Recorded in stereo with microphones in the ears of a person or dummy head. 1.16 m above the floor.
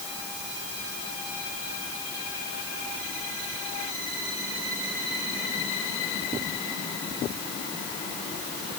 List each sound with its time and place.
Only background noise.